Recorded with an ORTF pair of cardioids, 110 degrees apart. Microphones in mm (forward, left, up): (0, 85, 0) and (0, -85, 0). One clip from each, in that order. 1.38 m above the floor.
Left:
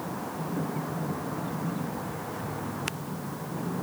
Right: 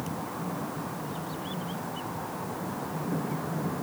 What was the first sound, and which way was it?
Only background noise.